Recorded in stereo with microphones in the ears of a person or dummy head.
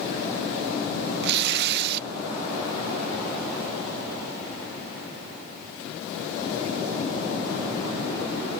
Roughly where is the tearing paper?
Right.